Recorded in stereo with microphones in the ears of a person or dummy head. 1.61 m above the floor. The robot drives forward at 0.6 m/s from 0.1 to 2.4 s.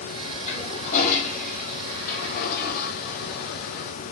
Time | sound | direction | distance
0.5 | a toilet flushing | 40° left (ahead or behind) | 3 m